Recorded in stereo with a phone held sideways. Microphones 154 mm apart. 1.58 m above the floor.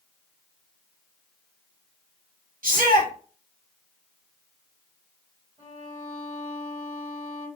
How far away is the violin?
About 1.9 m.